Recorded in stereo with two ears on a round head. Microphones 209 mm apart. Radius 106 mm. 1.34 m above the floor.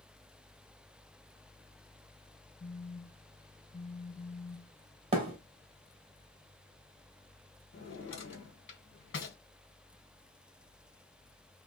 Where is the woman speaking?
I don't hear a woman speaking.